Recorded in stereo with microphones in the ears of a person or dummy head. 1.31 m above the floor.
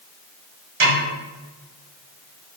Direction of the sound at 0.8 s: 65° right (ahead or behind).